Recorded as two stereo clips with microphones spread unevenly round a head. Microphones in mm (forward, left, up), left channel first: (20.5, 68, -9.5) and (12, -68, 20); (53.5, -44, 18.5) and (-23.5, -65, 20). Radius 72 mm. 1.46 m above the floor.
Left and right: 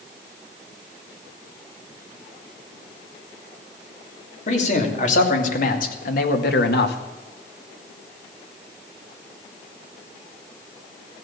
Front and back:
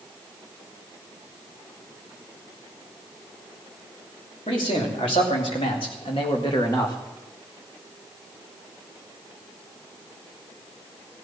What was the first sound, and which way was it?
A man speaking, 50° left.